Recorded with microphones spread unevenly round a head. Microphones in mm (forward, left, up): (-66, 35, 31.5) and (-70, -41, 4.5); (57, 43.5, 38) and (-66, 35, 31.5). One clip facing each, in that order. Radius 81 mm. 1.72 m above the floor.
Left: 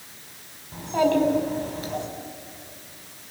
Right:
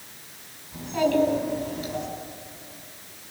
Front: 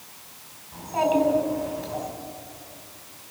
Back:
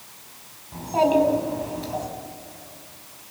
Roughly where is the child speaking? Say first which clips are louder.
Left 2 dB, back 3 dB; behind left.